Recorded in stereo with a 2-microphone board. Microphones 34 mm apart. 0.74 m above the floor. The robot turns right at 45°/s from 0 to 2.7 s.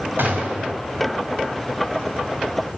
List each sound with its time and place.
0.2 s a gunshot: 80° right, 5 m; by 0.7 s 60° right (ahead or behind), 5 m